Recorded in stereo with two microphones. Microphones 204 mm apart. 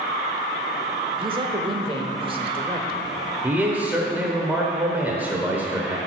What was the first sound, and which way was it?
A man speaking, 25° right (ahead or behind).